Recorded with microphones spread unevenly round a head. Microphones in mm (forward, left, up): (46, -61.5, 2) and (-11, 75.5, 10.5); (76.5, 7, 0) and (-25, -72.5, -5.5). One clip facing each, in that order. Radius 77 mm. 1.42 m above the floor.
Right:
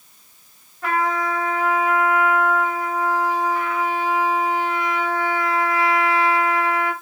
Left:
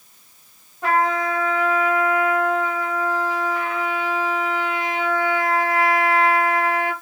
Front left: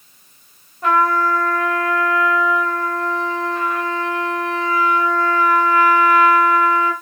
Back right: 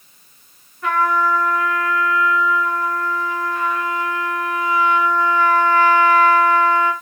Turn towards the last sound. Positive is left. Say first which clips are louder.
# left 2 dB, front left 2 dB
turn(degrees=65)